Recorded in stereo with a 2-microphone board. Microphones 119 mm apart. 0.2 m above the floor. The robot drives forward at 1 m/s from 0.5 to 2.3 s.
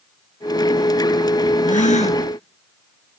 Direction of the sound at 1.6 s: 75° left (ahead or behind).